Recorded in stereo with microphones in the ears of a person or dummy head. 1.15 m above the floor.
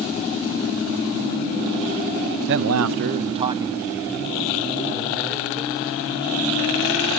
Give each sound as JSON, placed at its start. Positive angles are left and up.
{"t": 2.5, "sound": "a man speaking", "side_deg": -55, "distance_m": 0.6}